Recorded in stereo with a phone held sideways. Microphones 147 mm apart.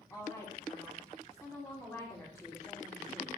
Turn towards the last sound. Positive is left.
turn(degrees=10)  # may be behind; listen again after turning